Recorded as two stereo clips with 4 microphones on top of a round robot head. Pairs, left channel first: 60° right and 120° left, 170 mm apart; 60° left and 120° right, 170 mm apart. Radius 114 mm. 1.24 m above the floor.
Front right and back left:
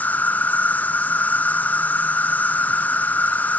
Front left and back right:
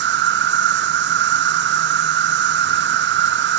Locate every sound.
0.0 s an insect: 140° right